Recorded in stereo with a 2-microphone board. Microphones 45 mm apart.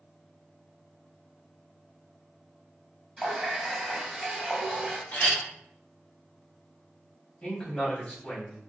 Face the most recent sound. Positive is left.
turn(degrees=20)  # may be behind; listen again after turning